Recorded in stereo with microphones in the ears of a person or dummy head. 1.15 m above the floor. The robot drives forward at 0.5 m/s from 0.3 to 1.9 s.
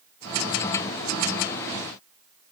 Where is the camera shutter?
No camera shutter in this recording.